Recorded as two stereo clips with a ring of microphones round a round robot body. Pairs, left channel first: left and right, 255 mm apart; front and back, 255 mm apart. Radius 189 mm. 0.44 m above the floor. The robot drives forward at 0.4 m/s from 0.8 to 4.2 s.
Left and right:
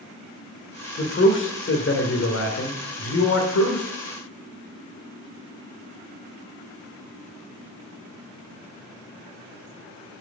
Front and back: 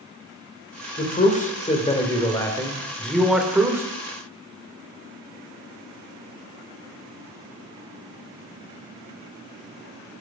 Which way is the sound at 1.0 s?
55° left.